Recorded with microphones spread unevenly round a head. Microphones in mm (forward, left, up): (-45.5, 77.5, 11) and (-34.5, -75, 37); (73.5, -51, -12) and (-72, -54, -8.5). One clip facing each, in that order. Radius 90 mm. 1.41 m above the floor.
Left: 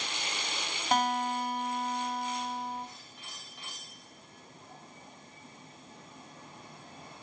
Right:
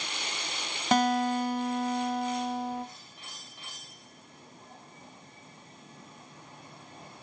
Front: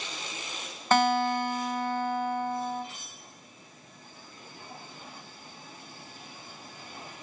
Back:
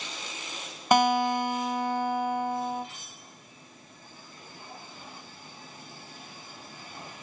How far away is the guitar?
About 0.6 m.